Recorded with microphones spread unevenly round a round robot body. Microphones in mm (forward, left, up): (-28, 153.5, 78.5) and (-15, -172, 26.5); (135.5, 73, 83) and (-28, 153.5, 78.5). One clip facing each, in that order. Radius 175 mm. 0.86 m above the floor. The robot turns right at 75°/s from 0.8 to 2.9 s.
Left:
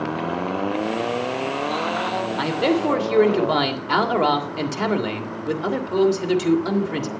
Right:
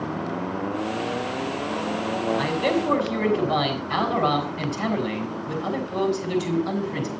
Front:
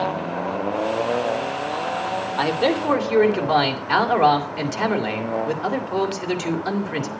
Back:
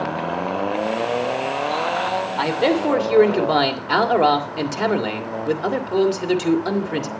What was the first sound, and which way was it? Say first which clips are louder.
A man speaking: left 6 dB, back 1 dB; 60° left.